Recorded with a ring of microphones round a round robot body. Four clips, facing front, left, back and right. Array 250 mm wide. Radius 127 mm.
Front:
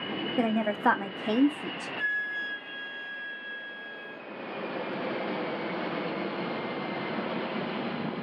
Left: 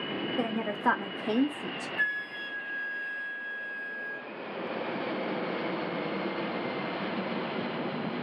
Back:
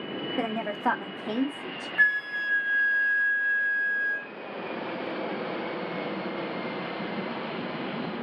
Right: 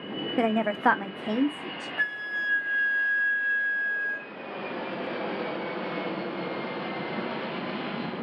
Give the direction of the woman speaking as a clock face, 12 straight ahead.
3 o'clock.